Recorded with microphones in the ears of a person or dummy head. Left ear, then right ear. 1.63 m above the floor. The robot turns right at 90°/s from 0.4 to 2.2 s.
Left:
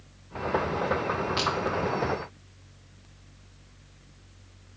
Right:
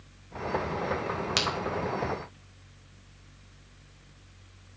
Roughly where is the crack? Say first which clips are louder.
Right 2 dB; right.